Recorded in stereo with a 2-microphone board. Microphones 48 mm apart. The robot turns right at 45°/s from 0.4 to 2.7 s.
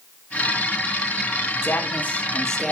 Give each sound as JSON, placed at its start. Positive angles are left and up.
{"t": 1.6, "sound": "a man speaking", "azimuth_deg": 130, "distance_m": 1.9}